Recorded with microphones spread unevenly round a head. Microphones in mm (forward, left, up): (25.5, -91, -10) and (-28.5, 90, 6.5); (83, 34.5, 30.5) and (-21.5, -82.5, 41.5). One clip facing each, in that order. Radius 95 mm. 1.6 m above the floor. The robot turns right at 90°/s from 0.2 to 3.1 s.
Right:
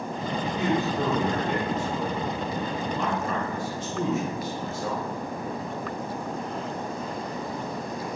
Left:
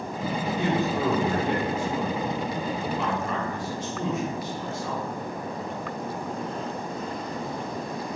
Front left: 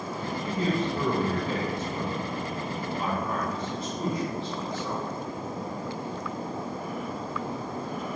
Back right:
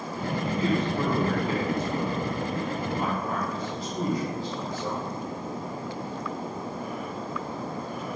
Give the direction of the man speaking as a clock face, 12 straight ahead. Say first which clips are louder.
Even, back right 1 dB; 11 o'clock.